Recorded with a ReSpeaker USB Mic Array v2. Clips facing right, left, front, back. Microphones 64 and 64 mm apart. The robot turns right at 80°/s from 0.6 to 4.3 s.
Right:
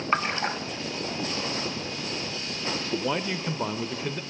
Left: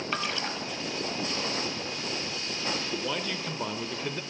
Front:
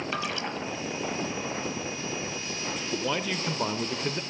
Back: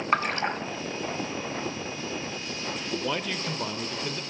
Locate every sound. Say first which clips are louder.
0.1 s a splash: right 7 dB, back 10 dB; 140° right, 1.1 m
2.9 s a man speaking: right 4 dB, front 1 dB; 100° right, 0.9 m; by 4.2 s 5° left, 0.9 m